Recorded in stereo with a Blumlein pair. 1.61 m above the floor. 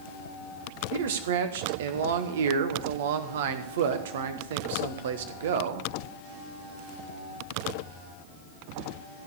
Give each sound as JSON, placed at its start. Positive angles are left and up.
{"t": 0.9, "sound": "a man speaking", "azimuth_deg": -60, "distance_m": 1.3}